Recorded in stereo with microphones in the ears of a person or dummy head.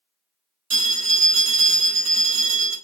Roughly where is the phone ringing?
Right.